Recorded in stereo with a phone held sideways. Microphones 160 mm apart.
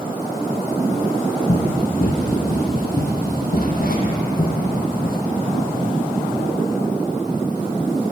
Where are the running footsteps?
60° left (ahead or behind), 3 m; by 5.2 s 65° left (ahead or behind), 5 m.